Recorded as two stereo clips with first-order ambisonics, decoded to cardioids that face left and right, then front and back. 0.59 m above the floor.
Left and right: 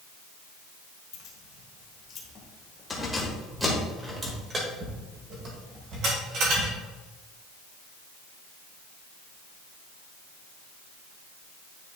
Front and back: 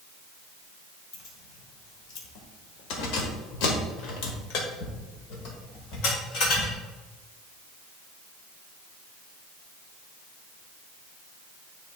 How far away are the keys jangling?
About 1.7 m.